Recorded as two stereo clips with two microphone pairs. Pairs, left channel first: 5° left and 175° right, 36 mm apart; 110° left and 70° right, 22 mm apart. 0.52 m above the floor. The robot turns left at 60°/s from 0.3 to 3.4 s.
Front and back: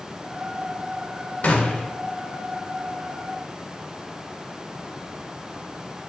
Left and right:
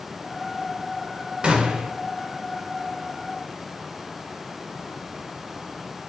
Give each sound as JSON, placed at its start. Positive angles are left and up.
{"t": 1.4, "sound": "a gunshot", "azimuth_deg": -30, "distance_m": 0.7}